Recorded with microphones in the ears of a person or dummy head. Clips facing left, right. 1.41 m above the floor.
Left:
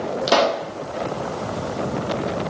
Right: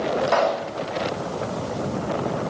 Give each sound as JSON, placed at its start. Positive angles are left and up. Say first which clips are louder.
{"t": 0.3, "sound": "a pop", "louder": "left 6 dB", "side_deg": 55, "distance_m": 1.4}